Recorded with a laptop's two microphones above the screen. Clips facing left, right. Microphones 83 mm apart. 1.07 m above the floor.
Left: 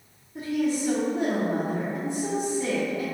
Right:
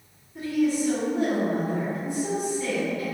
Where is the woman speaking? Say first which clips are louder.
Right 2 dB; 25° left (ahead or behind), 1.3 m.